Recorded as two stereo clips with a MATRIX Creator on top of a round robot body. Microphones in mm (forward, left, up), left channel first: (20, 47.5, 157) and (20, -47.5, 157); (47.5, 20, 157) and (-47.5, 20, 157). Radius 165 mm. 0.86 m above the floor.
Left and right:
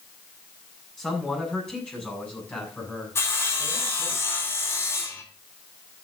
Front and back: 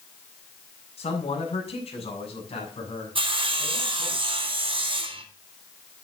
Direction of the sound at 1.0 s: 5° left.